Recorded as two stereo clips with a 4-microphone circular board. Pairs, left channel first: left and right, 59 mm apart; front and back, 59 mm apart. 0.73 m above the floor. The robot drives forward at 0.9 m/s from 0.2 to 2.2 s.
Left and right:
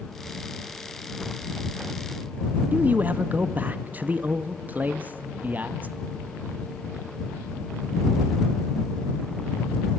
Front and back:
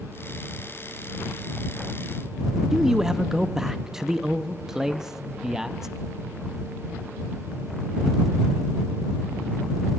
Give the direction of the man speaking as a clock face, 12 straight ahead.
3 o'clock.